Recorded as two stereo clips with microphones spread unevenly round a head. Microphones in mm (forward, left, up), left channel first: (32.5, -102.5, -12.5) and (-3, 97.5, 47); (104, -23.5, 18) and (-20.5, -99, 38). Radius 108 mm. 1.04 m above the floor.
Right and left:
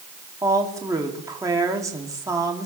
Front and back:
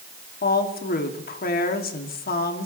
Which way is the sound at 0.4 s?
20° left.